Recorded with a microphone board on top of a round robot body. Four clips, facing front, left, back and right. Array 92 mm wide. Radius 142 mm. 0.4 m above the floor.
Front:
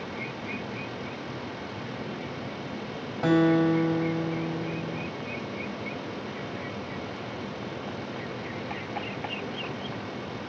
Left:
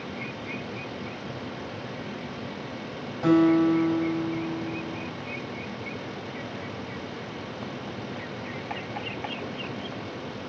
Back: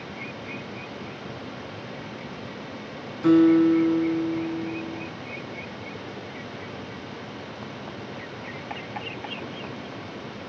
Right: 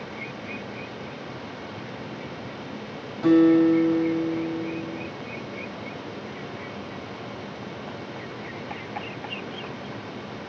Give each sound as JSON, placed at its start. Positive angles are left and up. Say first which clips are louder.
{"t": 3.2, "sound": "a guitar", "louder": "right 3 dB, back 5 dB", "azimuth_deg": 5, "distance_m": 4.0}